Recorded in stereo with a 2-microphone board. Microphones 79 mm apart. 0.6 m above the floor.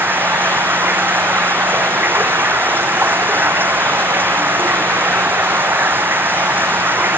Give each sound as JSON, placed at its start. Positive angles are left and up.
{"t": 0.0, "sound": "running water", "side_deg": -25}